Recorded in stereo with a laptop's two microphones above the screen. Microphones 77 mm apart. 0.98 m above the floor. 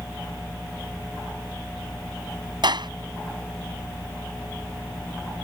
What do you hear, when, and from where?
2.6 s a clap: 70° right (ahead or behind)